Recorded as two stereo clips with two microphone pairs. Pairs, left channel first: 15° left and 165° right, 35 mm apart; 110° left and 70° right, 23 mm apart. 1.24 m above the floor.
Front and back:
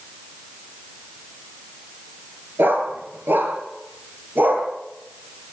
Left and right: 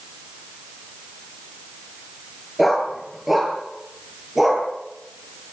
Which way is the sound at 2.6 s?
155° right.